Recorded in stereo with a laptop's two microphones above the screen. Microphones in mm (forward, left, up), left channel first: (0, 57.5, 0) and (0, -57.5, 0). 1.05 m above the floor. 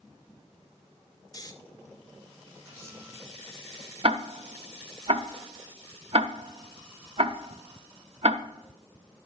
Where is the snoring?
35° left (ahead or behind), 1.3 m.